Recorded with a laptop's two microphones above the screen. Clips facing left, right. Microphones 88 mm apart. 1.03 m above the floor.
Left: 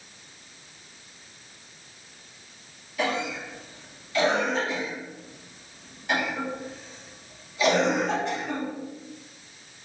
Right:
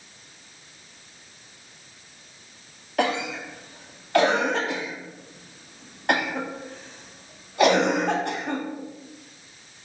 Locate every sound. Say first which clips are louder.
3.0 s a cough: right 3 dB; 75° right (ahead or behind), 1.1 m